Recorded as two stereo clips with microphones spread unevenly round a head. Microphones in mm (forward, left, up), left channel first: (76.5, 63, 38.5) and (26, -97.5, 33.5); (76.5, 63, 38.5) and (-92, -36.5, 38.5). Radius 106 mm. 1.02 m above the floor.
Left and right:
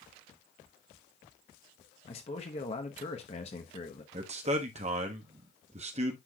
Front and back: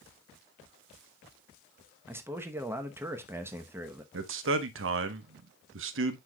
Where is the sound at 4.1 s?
160° right, 1.1 m.